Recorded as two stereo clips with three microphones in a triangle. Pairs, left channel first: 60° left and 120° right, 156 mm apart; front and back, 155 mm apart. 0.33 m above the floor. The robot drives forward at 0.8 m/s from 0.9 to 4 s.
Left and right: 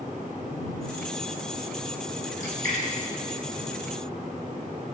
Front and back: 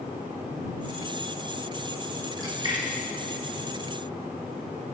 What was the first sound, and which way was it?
A splash, 120° right.